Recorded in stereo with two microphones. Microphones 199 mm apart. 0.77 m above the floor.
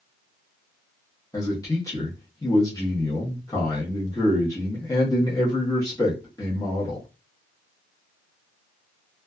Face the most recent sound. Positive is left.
turn(degrees=15)  # may be behind; listen again after turning